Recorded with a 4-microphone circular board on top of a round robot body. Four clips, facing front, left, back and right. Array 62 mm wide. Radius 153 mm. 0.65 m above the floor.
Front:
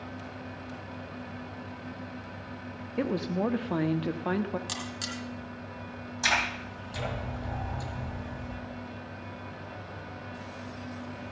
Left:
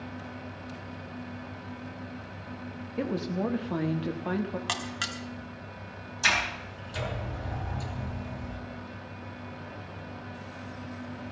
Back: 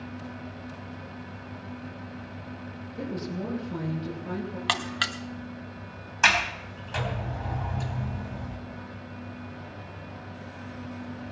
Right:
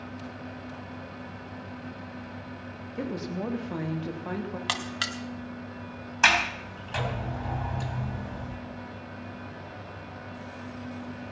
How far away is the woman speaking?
About 1.8 m.